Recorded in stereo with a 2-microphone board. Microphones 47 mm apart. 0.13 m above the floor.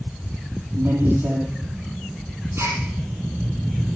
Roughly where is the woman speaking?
Right.